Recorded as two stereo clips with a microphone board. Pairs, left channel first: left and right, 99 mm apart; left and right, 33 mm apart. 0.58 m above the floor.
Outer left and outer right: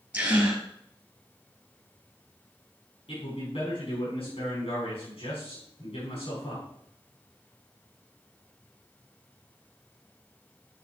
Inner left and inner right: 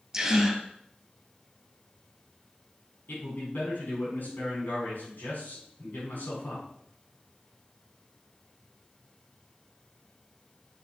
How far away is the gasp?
About 2.5 m.